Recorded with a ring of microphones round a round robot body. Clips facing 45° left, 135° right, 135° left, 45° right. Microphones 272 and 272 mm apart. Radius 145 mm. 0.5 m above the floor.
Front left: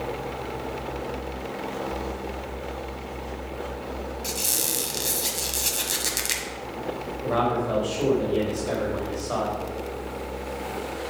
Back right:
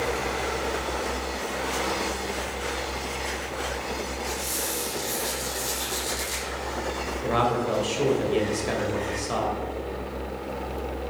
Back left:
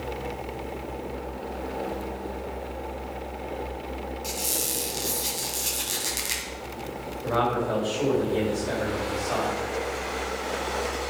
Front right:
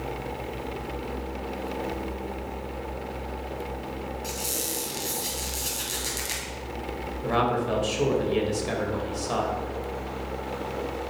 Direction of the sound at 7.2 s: 85° right.